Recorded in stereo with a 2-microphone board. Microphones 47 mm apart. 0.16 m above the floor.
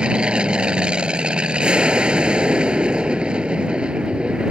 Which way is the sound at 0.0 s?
20° right (ahead or behind).